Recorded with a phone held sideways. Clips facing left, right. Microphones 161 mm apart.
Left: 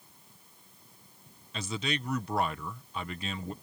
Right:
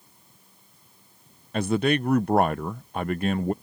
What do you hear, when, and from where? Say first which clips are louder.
1.5 s a man speaking: right 12 dB; 50° right (ahead or behind)